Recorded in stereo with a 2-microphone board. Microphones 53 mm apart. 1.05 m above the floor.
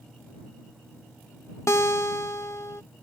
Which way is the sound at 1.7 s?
65° left (ahead or behind).